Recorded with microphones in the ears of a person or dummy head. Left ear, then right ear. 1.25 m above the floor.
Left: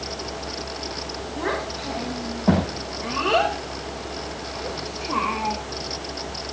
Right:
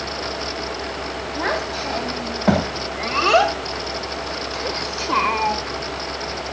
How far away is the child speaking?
About 4.5 m.